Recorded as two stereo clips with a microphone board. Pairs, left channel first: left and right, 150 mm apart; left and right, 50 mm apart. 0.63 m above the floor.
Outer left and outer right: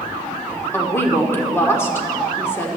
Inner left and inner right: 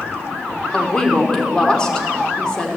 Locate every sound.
0.7 s a woman speaking: 15° left (ahead or behind), 1.4 m